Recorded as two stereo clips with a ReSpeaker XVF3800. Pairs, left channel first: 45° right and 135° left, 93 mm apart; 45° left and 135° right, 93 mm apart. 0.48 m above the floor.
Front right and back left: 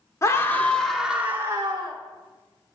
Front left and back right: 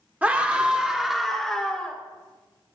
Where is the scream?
75° right, 1.3 m; by 2.0 s 120° left, 1.4 m.